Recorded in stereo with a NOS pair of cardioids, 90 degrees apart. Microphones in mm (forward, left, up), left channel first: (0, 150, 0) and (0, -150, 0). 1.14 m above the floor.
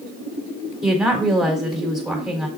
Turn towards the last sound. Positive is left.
turn(degrees=0)